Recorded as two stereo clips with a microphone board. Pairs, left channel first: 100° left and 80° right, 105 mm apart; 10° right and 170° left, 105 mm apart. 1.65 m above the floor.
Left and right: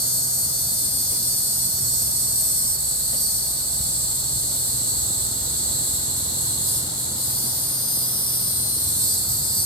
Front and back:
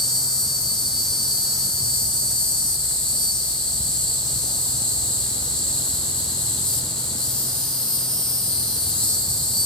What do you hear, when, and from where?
0.0 s an insect: 70° left, 2 m